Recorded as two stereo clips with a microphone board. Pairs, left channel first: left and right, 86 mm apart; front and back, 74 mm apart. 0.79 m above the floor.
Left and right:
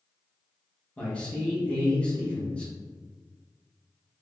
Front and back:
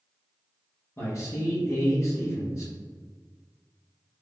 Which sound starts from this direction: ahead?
A man speaking, at 1.0 s.